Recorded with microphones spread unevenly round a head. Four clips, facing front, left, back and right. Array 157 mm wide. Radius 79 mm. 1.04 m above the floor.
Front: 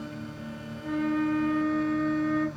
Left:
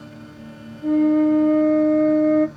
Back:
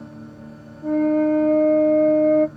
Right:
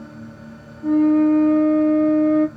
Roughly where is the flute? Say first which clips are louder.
Right 1 dB, back 9 dB; behind left.